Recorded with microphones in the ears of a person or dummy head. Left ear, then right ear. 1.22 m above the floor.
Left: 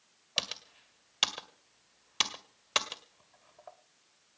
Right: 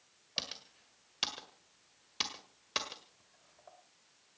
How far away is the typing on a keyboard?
About 1.5 m.